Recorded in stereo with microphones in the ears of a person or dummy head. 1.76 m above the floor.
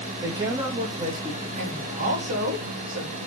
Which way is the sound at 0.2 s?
20° right (ahead or behind).